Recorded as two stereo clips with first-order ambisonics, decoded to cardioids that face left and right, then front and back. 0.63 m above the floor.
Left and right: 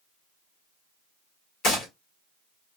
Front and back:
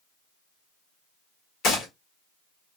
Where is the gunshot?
50° left, 1.6 m.